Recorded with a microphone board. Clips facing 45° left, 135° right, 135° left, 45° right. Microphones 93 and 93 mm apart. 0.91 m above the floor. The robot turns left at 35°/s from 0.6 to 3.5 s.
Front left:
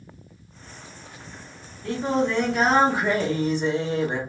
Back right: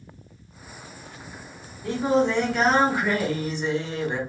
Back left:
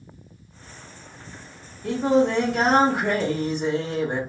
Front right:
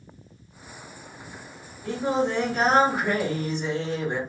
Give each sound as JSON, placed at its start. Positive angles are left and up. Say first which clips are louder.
{"t": 1.8, "sound": "singing", "louder": "back right 2 dB, back left 5 dB", "azimuth_deg": 150, "distance_m": 1.0}